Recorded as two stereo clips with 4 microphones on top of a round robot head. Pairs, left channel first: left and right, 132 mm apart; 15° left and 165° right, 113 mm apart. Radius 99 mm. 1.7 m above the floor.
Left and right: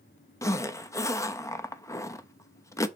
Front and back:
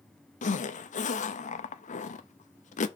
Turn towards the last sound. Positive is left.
turn(degrees=20)